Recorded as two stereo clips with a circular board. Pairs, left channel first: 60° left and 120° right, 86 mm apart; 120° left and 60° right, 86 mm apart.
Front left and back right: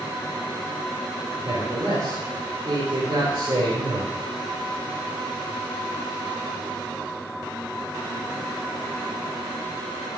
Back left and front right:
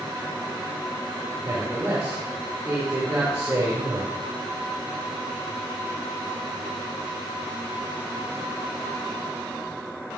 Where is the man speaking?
120° right, 4.5 m.